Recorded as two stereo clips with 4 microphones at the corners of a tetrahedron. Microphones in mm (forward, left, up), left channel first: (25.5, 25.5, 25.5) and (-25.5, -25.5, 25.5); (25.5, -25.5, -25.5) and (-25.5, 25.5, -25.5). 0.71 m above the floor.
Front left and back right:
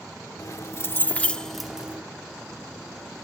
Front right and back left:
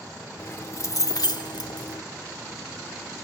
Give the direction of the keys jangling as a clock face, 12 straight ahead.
12 o'clock.